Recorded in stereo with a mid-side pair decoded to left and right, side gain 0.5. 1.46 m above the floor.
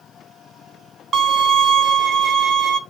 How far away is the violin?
About 0.5 m.